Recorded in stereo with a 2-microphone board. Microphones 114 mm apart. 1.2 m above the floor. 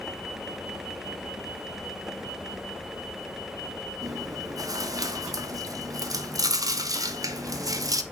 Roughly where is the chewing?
Right.